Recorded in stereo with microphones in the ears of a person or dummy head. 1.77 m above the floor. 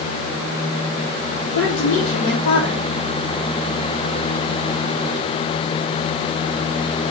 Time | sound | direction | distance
1.6 | a woman speaking | 65° left (ahead or behind) | 1.2 m